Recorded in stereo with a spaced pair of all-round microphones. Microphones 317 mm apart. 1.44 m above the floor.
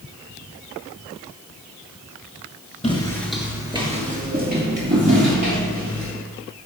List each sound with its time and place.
2.8 s footsteps: 15° left (ahead or behind), 1.4 m; by 6.1 s 40° right (ahead or behind), 4 m